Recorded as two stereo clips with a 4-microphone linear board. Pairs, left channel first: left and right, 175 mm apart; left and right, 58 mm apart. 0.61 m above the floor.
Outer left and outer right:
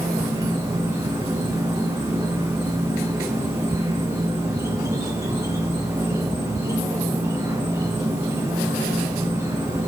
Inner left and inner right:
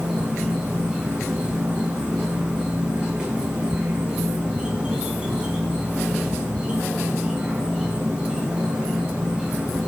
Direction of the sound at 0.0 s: 20° right (ahead or behind).